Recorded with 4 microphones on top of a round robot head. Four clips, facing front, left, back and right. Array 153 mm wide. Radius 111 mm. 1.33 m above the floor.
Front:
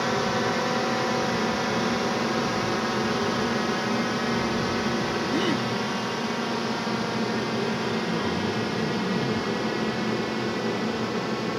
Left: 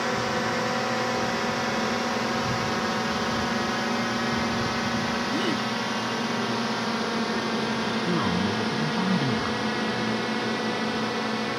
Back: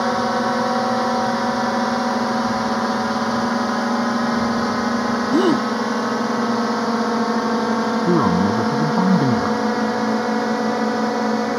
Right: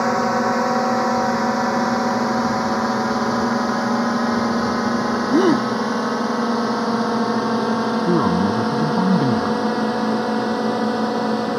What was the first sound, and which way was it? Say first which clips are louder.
A drone: right 8 dB, back 6 dB; 125° right.